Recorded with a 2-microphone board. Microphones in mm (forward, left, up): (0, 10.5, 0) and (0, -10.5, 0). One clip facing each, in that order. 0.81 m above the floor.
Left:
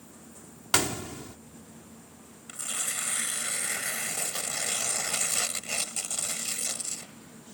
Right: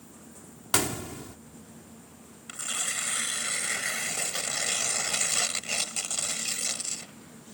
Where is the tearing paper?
25° right (ahead or behind).